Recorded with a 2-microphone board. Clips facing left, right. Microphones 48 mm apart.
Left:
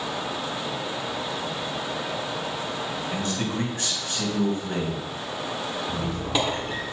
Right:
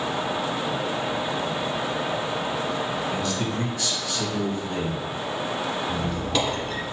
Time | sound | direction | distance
3.1 | a man speaking | 40° left (ahead or behind) | 3 m
5.9 | a squeak | 15° left (ahead or behind) | 1.7 m